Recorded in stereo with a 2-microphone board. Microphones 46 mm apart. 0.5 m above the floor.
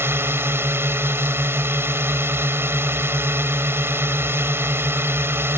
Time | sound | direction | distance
0.0 | a drone | 60° right (ahead or behind) | ?